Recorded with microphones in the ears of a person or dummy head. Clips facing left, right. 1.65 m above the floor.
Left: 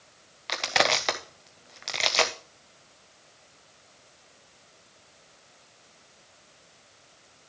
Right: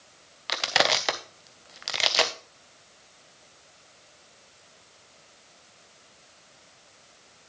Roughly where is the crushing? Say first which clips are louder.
Even; centre.